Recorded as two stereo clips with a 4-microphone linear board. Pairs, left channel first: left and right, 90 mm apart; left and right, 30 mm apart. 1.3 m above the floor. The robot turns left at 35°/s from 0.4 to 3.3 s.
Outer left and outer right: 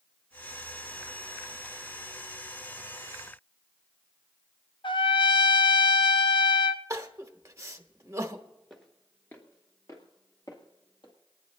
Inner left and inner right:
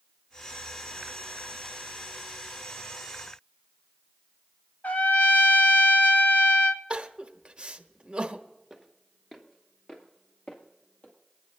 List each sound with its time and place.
4.8 s a trumpet: 65° left (ahead or behind), 0.6 m
6.9 s crying: 35° right (ahead or behind), 0.8 m
8.7 s footsteps: 5° left (ahead or behind), 1.3 m; by 11.1 s 60° left (ahead or behind), 2.5 m